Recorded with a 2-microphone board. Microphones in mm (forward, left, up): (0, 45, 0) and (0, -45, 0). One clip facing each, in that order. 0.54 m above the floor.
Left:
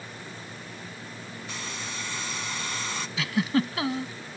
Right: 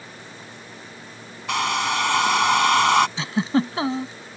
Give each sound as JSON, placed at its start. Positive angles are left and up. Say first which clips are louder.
{"t": 1.5, "sound": "a hair dryer", "louder": "right 18 dB", "side_deg": -80}
{"t": 3.2, "sound": "a giggle", "louder": "right 3 dB", "side_deg": -30}